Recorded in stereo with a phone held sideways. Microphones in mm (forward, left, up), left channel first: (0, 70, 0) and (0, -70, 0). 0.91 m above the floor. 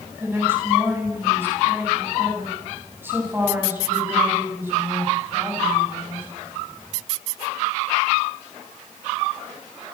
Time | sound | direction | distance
0.2 | a woman speaking | 15° right (ahead or behind) | 8.5 m